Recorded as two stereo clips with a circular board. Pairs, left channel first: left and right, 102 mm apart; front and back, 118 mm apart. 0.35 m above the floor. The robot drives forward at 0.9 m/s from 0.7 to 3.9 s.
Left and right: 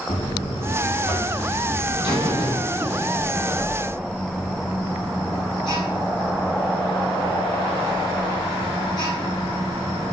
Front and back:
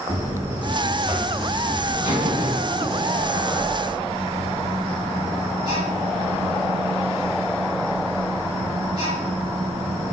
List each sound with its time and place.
0.1 s a buzzer: 110° left, 7.5 m; by 10.1 s 130° left, 9 m